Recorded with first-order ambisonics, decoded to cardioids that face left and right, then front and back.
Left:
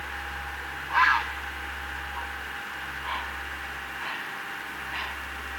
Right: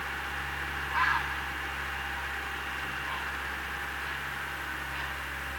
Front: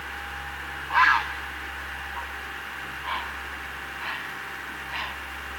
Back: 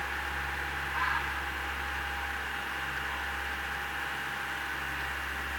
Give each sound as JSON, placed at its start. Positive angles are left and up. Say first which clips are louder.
{"t": 0.9, "sound": "a bird", "louder": "left 6 dB, front 13 dB", "azimuth_deg": 30, "distance_m": 0.5}